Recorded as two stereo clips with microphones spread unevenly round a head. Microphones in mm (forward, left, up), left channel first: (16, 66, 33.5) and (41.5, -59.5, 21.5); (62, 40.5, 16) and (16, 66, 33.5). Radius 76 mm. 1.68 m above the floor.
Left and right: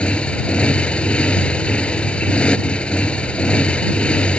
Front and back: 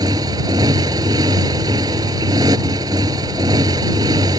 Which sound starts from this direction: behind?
A motorcycle, at 0.0 s.